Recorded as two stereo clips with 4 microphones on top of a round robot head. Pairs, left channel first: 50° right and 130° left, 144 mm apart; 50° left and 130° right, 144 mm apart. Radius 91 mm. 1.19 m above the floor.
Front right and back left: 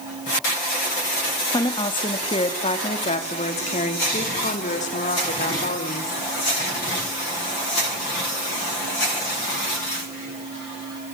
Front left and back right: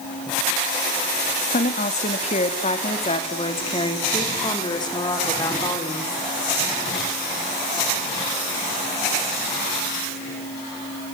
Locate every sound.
1.5 s a woman speaking: 15° left, 2.5 m; by 6.2 s 15° right, 4.5 m